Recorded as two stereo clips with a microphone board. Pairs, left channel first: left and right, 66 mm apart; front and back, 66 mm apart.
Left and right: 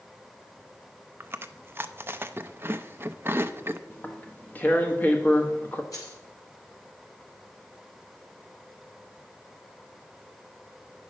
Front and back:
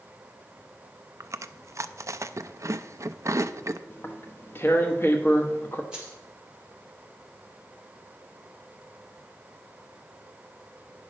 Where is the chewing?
140° right, 0.5 m.